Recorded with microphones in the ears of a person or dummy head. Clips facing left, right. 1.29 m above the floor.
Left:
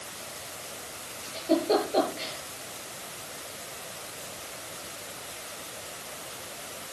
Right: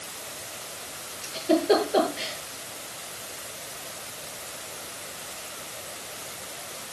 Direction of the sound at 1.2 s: 20° right (ahead or behind).